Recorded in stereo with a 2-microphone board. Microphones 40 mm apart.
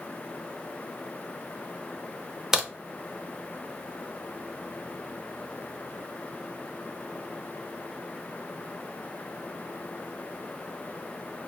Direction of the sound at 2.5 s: 10° right (ahead or behind).